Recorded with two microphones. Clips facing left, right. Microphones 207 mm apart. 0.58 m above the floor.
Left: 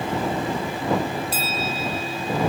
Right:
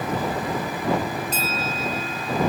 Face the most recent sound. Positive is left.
turn(degrees=10)  # may be behind; listen again after turning